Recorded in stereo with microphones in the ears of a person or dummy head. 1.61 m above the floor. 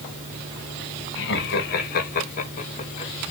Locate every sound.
1.1 s laughter: 65° left (ahead or behind), 3 m; by 3.1 s 35° left (ahead or behind), 3 m